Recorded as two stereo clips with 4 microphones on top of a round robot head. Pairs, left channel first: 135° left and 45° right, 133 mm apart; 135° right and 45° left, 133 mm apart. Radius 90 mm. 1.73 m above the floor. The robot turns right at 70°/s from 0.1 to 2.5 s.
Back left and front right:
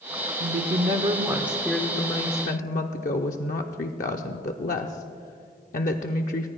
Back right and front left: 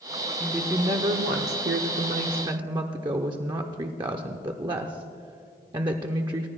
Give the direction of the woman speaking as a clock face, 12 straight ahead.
1 o'clock.